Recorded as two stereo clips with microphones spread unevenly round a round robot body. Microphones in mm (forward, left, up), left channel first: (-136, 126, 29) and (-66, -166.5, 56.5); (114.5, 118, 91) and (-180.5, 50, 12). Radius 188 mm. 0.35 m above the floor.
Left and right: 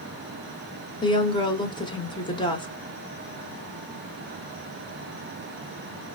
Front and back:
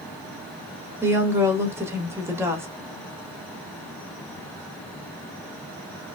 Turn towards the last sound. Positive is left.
turn(degrees=150)